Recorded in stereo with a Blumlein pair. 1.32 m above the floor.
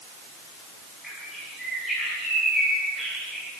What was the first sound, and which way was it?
A bird, 5° left.